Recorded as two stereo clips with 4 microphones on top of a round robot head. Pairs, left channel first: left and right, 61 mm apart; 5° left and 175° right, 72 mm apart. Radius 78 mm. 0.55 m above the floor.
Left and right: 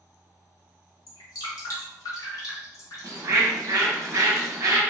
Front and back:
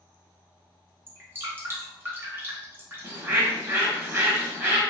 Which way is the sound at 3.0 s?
120° right.